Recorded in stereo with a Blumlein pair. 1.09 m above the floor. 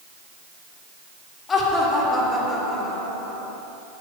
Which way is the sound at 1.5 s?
20° left.